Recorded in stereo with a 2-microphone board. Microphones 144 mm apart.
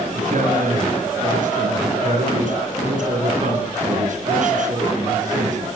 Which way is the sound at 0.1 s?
65° right (ahead or behind).